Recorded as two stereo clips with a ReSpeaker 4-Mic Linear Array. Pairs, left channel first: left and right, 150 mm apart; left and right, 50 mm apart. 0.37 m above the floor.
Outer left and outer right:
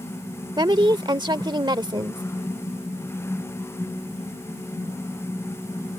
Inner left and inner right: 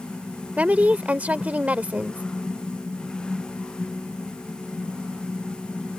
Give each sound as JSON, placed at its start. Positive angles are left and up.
{"t": 0.6, "sound": "a woman speaking", "side_deg": -30}